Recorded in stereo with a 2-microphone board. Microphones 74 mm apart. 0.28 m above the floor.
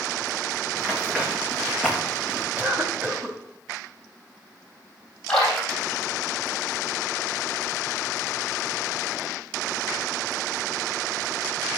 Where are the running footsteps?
20° right (ahead or behind), 4 m; by 2.5 s centre (ahead or behind), 2.5 m.